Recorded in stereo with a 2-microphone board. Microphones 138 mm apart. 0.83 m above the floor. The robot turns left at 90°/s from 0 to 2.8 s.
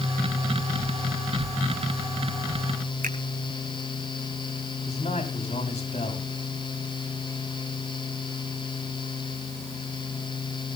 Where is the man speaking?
50° left (ahead or behind), 6.5 m.